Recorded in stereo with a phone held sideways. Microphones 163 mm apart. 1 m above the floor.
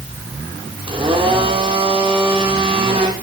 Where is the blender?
30° right (ahead or behind), 4 m.